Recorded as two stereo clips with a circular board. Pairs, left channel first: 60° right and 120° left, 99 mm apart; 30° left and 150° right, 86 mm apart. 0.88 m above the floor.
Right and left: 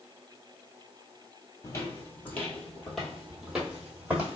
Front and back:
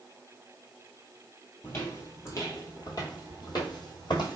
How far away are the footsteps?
About 1.1 m.